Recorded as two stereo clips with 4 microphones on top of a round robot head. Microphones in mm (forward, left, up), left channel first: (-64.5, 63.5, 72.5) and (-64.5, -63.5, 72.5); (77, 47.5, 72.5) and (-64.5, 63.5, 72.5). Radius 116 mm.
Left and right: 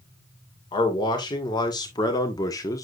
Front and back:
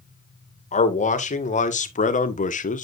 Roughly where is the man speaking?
Ahead left.